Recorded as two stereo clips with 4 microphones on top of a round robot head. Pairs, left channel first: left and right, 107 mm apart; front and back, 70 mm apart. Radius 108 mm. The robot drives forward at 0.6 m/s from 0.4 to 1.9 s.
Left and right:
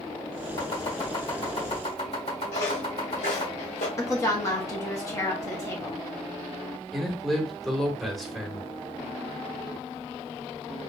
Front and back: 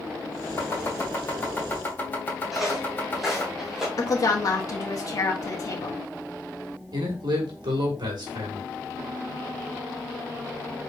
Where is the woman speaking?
30° left, 1.4 m.